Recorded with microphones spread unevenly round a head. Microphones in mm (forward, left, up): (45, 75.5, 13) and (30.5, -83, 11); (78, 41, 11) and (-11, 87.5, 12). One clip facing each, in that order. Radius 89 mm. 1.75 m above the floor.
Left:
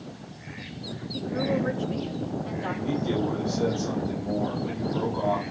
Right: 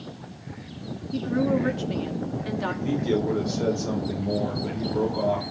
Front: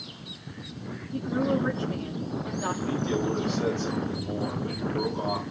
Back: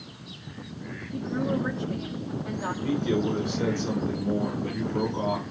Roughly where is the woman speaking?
Behind right.